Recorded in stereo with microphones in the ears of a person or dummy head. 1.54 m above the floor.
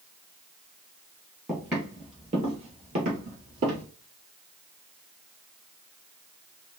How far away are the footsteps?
About 1.6 m.